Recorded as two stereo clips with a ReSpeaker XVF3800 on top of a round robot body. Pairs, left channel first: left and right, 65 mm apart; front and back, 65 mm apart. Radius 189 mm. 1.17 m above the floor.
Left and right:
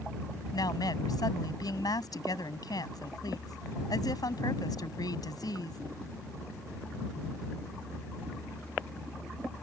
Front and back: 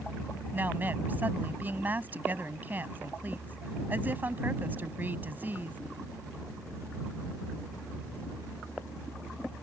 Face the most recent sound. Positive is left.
turn(degrees=115)